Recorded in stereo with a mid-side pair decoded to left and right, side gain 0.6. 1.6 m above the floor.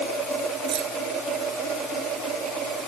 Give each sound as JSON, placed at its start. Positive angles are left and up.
{"t": 0.7, "sound": "keys jangling", "azimuth_deg": -50}